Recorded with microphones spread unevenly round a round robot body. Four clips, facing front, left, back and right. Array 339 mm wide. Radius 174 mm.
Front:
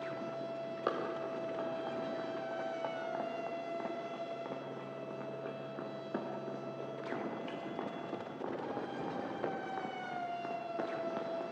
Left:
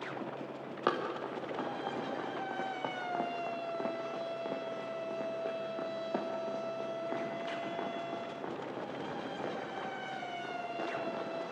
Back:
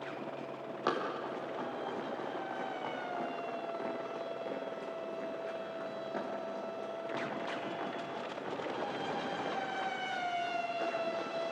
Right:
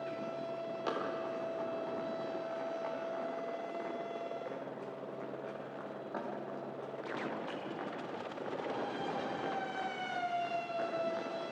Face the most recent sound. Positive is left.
turn(degrees=15)